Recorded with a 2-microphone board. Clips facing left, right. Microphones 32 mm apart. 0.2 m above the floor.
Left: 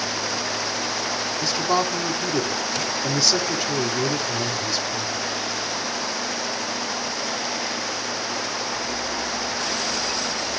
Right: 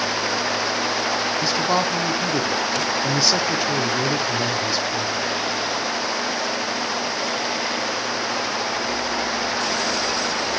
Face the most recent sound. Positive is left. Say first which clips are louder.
# left 1 dB
turn(degrees=-15)  # may be behind; listen again after turning